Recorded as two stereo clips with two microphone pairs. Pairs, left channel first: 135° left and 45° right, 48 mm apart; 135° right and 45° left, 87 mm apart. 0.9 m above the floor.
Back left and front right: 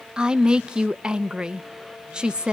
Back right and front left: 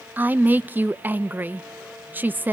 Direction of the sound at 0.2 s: 10° left.